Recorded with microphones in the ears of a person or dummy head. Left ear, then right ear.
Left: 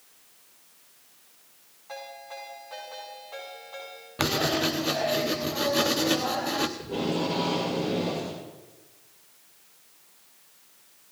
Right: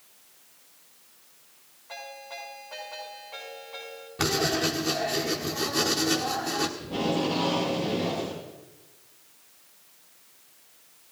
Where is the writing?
25° left (ahead or behind), 0.8 m.